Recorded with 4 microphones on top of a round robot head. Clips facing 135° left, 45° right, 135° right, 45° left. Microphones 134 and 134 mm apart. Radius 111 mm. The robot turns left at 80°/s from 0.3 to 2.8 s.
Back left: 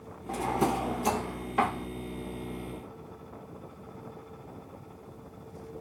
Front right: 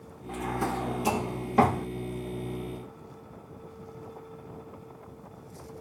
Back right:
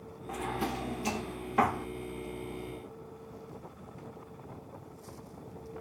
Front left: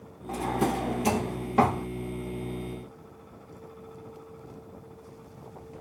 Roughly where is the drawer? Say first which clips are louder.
Back left 3 dB, front left 7 dB; left.